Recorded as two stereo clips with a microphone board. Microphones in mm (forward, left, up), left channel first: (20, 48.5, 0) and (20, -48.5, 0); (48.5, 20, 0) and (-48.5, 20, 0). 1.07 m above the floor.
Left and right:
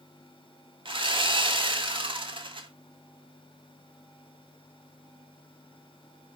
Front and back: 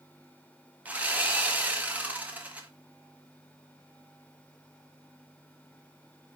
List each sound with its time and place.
0.8 s sawing: 105° right, 1.6 m